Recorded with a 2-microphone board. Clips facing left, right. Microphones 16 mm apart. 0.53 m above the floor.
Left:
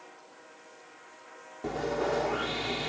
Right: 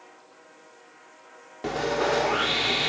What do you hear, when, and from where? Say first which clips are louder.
1.6 s sawing: right 5 dB; 45° right (ahead or behind)